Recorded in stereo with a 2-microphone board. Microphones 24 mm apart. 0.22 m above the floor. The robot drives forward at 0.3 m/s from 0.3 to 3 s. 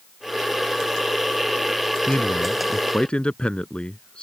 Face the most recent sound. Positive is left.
turn(degrees=50)  # may be behind; listen again after turning